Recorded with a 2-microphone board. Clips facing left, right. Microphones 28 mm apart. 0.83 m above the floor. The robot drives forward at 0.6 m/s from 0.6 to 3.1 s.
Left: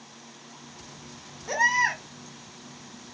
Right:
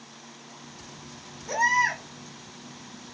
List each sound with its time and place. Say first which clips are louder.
1.5 s a baby crying: even; 30° left (ahead or behind), 1.2 m; by 2.0 s 25° left (ahead or behind), 1.5 m